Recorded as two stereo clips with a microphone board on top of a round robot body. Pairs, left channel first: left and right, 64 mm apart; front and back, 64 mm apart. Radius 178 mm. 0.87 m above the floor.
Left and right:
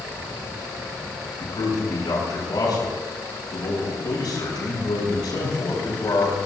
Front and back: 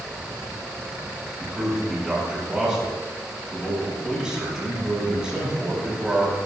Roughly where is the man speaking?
Left.